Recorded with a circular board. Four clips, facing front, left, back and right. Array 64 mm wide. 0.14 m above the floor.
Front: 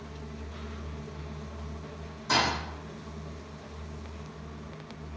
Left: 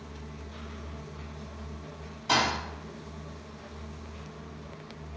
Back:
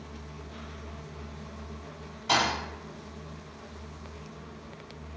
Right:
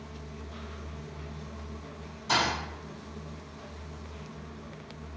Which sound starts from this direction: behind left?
A thud, at 2.3 s.